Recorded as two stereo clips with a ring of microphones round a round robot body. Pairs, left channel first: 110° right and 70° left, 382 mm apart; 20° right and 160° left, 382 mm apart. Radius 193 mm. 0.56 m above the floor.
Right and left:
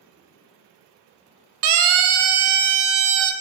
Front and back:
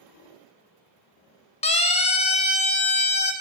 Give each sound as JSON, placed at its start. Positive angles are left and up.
{"t": 1.6, "sound": "a siren", "azimuth_deg": 50, "distance_m": 3.0}